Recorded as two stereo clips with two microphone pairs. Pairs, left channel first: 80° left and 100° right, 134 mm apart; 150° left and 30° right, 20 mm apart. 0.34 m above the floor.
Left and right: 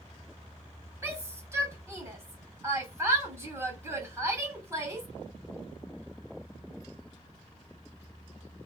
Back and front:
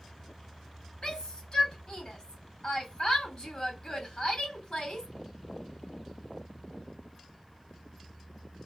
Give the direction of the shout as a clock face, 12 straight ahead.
6 o'clock.